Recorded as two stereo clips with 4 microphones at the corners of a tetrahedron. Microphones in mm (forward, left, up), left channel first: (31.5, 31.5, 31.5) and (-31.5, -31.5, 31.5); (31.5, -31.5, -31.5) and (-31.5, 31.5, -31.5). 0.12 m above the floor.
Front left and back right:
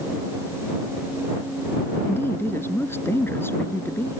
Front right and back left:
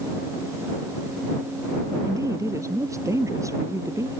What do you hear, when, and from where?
2.0 s a woman speaking: 100° left